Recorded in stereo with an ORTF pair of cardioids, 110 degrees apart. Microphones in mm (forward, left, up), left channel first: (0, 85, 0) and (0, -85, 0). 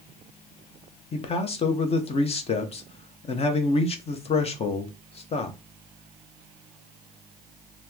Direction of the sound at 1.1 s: 35° left.